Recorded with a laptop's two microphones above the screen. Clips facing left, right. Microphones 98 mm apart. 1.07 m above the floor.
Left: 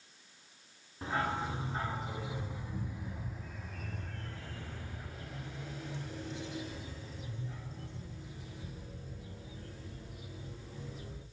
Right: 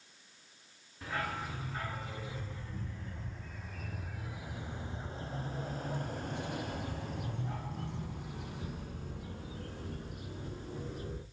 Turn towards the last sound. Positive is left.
turn(degrees=-65)  # may be behind; listen again after turning